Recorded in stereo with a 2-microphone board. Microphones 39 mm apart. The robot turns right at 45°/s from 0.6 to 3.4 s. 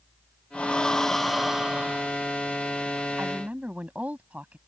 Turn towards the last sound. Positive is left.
turn(degrees=-35)  # may be behind; listen again after turning